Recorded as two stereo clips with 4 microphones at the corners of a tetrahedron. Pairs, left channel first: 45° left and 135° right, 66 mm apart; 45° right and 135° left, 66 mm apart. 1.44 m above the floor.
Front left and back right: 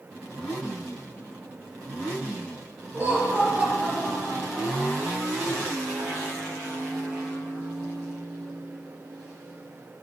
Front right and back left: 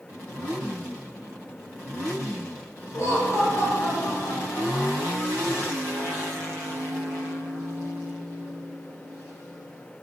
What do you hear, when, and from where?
2.9 s laughter: 80° right, 3.5 m; by 4.9 s 50° right, 2 m